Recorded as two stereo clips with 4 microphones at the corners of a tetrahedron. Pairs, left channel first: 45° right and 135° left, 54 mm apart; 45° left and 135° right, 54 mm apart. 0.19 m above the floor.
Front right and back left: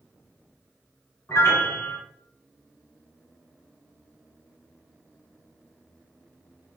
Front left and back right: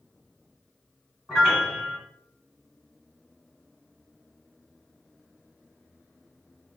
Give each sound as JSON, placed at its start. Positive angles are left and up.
{"t": 1.3, "sound": "a piano", "azimuth_deg": -50, "distance_m": 1.2}